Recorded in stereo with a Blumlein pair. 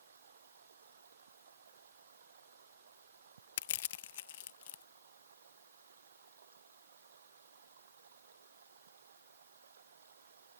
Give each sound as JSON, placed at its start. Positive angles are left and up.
{"t": 0.0, "sound": "running water", "azimuth_deg": -65}
{"t": 3.6, "sound": "crushing", "azimuth_deg": 55}